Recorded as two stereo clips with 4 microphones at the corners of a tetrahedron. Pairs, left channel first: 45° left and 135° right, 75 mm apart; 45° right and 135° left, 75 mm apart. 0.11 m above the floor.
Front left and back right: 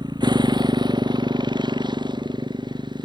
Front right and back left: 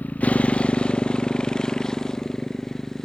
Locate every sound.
0.0 s a motorcycle: 115° right; by 3.0 s 130° right